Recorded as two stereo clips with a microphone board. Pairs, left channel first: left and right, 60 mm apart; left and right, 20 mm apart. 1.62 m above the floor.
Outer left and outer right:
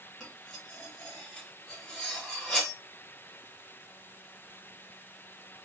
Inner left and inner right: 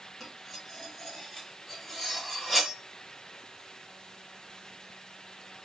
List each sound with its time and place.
0.2 s cutlery clinking: 5° left (ahead or behind), 1.2 m